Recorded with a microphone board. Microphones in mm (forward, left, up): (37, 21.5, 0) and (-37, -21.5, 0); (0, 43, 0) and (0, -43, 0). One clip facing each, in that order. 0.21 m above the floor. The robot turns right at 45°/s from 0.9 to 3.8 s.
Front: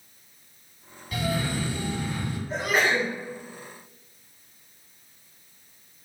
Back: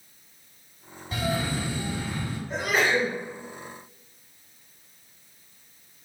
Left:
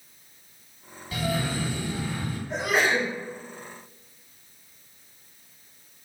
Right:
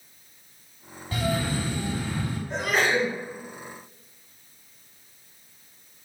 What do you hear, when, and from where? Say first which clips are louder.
1.1 s a cough: even, right 1 dB; 110° right, 1.3 m; by 2.4 s 55° right, 1.3 m
2.5 s a sneeze: even, even; 15° left, 2.0 m; by 3.1 s 40° left, 2.0 m